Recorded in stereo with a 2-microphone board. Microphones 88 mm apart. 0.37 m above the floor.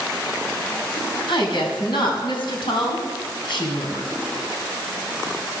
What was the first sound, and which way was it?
A woman speaking, 70° left (ahead or behind).